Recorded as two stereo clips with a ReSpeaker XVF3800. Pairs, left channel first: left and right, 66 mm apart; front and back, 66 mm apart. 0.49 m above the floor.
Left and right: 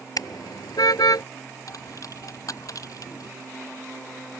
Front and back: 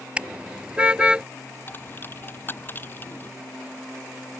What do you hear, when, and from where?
0.2 s a car horn: 110° left; by 1.2 s 105° left
1.7 s a dropped coin: 60° left